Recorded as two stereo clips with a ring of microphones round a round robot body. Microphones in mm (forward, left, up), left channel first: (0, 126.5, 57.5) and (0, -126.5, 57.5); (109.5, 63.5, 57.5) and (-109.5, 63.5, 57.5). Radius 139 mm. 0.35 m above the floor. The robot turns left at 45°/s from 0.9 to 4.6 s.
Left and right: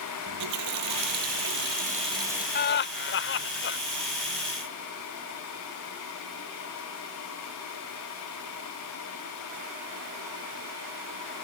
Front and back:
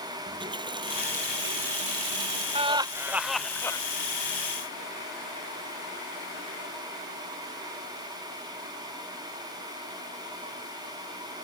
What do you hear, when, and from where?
0.3 s a running tap: 105° right; by 2.5 s 175° right
2.5 s laughter: 125° left; by 3.8 s 70° left